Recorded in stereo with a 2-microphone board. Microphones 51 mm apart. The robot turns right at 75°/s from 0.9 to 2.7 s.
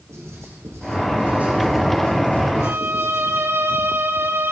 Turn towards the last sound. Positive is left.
turn(degrees=-50)  # may be behind; listen again after turning